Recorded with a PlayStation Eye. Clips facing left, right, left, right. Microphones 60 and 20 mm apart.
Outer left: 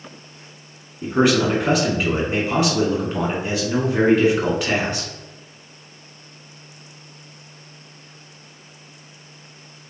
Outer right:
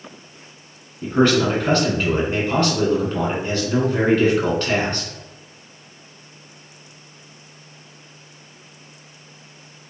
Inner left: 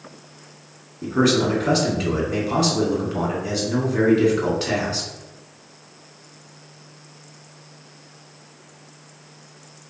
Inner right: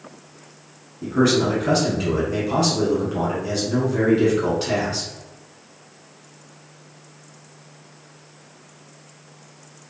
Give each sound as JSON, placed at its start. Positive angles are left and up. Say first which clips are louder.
{"t": 1.0, "sound": "a man speaking", "louder": "outer right 1 dB, even", "side_deg": 10, "distance_m": 1.4}